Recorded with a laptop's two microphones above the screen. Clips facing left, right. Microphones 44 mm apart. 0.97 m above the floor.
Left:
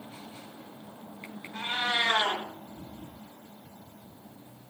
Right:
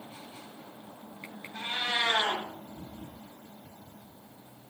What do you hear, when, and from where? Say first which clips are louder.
1.5 s a cat meowing: left 2 dB; 40° left (ahead or behind), 0.7 m